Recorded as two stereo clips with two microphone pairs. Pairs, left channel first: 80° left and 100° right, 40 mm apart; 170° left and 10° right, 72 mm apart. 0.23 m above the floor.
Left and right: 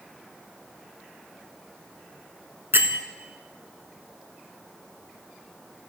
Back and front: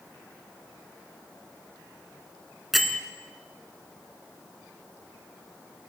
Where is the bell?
95° right, 0.8 m.